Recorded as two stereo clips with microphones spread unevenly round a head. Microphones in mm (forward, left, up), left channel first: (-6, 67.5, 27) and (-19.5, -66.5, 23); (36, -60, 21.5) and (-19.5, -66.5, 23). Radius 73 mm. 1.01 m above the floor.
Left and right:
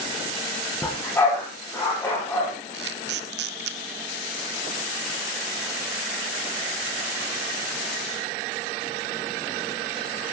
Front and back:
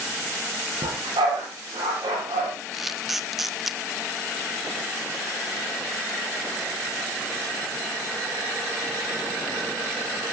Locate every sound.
0.8 s a dog barking: 160° left, 8.5 m
2.7 s a camera shutter: 85° right, 1.3 m